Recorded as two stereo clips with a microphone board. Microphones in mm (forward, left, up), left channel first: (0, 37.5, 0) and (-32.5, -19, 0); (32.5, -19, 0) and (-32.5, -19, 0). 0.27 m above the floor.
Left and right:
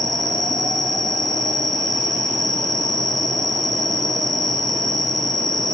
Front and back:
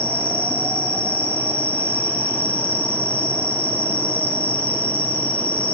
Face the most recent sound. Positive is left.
turn(degrees=70)